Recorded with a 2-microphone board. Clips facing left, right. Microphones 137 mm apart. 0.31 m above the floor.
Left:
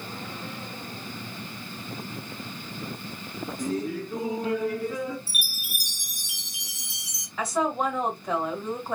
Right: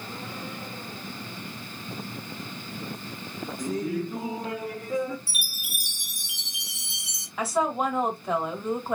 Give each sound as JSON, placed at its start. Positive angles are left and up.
{"t": 3.6, "sound": "laughter", "side_deg": 10, "distance_m": 1.6}
{"t": 5.3, "sound": "a chime", "side_deg": -25, "distance_m": 1.3}
{"t": 7.4, "sound": "a woman speaking", "side_deg": -5, "distance_m": 1.6}